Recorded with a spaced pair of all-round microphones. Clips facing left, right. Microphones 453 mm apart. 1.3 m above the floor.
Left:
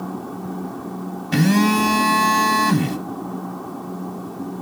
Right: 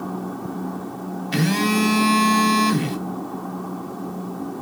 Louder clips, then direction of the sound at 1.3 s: Left 4 dB; 65° left (ahead or behind).